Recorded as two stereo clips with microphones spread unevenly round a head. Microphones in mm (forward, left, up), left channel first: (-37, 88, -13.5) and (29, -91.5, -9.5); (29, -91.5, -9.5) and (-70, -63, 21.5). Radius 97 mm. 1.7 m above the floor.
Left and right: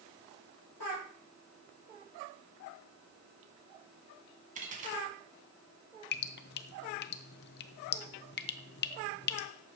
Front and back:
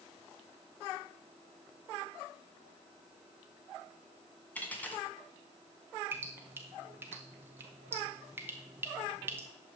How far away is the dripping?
About 0.6 m.